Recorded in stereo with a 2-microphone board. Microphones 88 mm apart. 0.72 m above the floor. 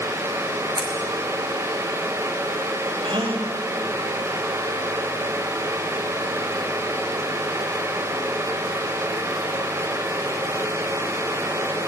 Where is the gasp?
70° right (ahead or behind), 4.5 m.